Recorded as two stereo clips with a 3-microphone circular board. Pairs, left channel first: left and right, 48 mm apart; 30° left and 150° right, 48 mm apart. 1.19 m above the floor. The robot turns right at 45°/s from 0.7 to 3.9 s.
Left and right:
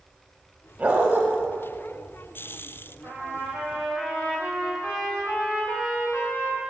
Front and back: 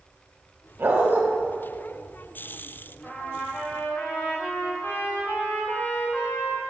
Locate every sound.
0.8 s a dog barking: 145° right, 1.5 m; by 1.2 s 130° right, 1.5 m
3.0 s a trumpet: 60° right, 3 m; by 6.6 s 20° right, 3 m